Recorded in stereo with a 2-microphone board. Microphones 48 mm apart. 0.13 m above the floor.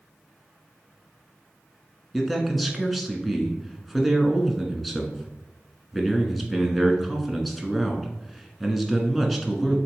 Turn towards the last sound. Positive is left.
turn(degrees=0)  # may be behind; listen again after turning